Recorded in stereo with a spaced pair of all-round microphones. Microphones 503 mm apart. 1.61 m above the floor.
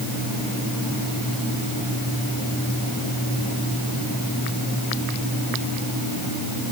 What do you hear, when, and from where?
Only background noise.